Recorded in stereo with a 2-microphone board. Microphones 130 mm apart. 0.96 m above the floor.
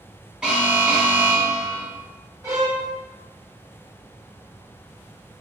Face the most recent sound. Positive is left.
turn(degrees=-25)  # may be behind; listen again after turning